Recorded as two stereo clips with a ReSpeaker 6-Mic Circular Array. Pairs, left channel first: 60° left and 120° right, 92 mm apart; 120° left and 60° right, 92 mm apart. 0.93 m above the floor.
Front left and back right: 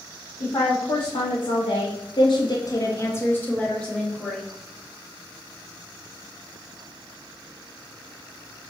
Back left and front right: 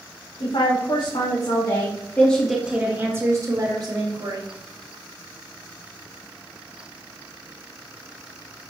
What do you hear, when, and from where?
0.4 s a woman speaking: 100° left, 2.5 m; by 4.4 s 25° right, 3 m